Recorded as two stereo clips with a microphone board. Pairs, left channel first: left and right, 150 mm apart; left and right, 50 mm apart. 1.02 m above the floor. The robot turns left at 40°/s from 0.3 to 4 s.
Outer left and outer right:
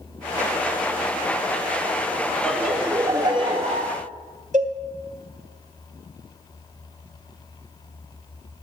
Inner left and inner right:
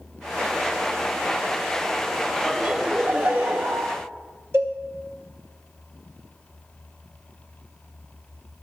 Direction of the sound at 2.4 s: 5° left.